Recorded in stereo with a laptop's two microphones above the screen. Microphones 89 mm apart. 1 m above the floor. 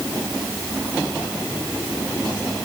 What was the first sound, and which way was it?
Only background noise.